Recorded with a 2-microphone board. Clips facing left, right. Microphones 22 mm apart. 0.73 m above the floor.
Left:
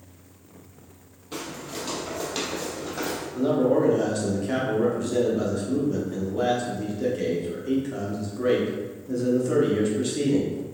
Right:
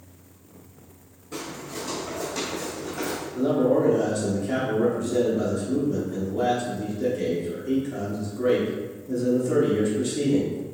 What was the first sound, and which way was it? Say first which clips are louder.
Footsteps: even; 65° left (ahead or behind).